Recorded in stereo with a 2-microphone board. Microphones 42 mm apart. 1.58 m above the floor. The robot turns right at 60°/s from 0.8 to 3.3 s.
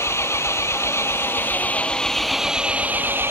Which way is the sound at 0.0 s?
85° left.